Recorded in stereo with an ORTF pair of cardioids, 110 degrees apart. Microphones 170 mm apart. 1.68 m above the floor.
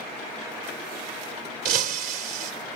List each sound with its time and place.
1.6 s breaking glass: 65° right, 3 m